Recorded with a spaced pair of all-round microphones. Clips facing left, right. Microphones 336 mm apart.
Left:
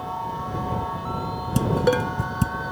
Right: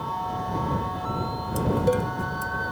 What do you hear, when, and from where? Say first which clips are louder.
1.6 s dishes clattering: left 2 dB; 85° left